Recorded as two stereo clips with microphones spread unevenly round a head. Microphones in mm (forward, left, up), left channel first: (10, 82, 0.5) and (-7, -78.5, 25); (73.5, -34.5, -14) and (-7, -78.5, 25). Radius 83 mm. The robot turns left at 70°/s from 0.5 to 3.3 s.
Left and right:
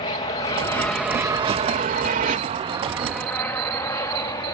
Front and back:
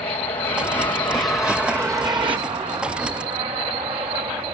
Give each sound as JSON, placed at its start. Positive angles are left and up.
{"t": 0.0, "sound": "an aircraft", "azimuth_deg": 55}